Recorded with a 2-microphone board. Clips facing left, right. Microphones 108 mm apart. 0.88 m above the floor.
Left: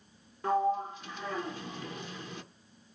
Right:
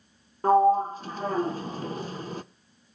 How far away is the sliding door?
About 0.6 m.